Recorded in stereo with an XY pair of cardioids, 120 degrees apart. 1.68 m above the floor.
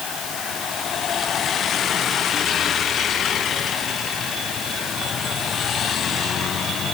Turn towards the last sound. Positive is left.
No sound to turn to.